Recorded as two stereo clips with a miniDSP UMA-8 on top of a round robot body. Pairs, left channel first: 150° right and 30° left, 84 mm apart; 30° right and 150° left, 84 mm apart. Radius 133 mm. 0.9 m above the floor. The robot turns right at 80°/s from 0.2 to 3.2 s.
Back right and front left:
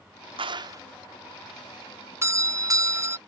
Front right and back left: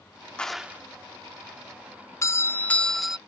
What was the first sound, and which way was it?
A clap, 45° left.